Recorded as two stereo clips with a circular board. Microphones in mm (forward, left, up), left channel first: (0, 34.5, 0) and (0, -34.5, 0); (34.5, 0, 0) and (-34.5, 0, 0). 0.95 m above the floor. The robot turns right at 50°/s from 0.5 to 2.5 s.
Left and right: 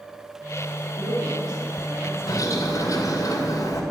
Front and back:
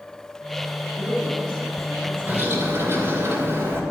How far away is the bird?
About 2.5 m.